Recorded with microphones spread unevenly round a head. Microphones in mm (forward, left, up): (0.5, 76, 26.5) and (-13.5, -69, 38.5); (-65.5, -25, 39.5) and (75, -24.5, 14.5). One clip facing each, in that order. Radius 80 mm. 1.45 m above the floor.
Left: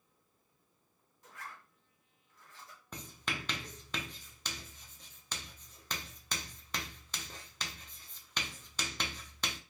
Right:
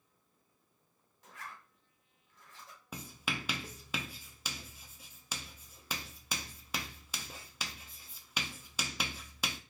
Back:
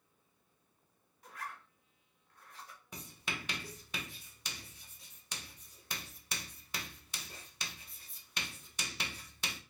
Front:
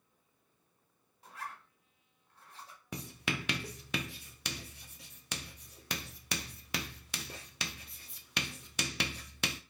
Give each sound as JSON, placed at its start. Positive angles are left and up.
{"t": 1.2, "sound": "a zipper", "azimuth_deg": -65, "distance_m": 1.4}
{"t": 2.9, "sound": "writing", "azimuth_deg": -15, "distance_m": 0.6}